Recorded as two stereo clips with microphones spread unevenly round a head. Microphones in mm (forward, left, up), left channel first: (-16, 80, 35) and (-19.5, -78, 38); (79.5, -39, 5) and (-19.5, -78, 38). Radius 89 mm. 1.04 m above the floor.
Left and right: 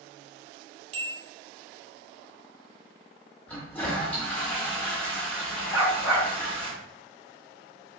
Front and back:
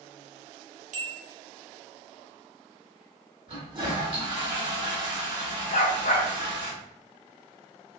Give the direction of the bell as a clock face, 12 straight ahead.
5 o'clock.